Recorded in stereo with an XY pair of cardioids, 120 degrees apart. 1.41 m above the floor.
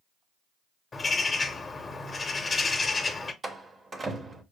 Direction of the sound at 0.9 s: 20° left.